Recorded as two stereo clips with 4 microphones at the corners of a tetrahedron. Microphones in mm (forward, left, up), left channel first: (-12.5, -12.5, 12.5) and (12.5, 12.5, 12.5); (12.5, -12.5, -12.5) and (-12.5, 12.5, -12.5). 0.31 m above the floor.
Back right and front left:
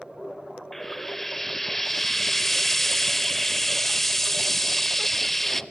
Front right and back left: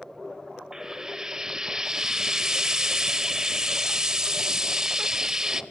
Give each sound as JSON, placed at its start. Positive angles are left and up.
{"t": 0.7, "sound": "frying", "azimuth_deg": 160, "distance_m": 0.6}